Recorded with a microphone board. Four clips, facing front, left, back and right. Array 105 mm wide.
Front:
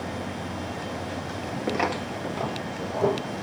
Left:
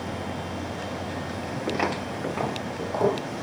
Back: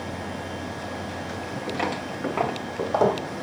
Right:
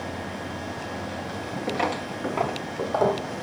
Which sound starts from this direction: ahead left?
Footsteps, at 1.7 s.